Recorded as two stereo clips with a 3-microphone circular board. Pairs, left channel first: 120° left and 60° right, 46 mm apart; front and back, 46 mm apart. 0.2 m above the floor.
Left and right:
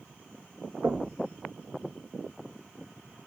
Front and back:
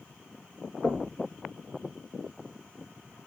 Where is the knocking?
65° right, 3 m.